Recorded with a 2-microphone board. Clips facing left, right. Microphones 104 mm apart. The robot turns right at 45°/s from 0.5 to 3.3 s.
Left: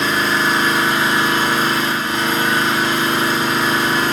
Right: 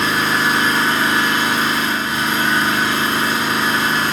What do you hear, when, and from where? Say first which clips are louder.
0.0 s an engine running: even; 5° right, 2.5 m; by 4.1 s 120° left, 2.5 m